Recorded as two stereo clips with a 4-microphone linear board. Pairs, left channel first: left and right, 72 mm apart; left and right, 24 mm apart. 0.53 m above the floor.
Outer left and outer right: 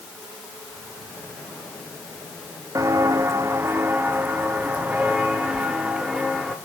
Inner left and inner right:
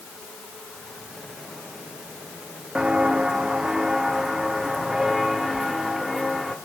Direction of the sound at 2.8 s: 50° right (ahead or behind).